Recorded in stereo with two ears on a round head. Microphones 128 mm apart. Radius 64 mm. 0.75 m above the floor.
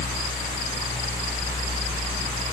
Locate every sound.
Only background noise.